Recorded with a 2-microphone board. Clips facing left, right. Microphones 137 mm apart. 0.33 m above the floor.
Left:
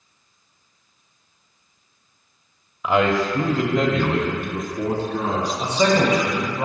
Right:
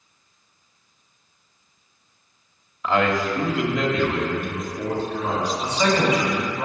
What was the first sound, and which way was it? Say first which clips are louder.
A man speaking: left 2 dB; 10° left (ahead or behind).